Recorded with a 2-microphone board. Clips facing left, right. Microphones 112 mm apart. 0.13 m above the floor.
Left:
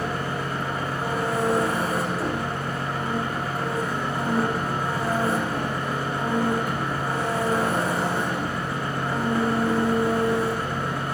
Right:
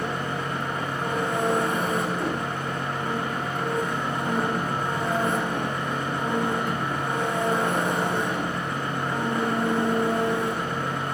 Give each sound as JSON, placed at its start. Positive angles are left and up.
{"t": 0.0, "sound": "an engine running", "side_deg": 5, "distance_m": 9.0}